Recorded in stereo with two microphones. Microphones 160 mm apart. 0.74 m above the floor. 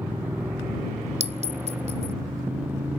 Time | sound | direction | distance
0.0 | a motorcycle | 10° right (ahead or behind) | ?
1.2 | a clink | 45° right (ahead or behind) | ?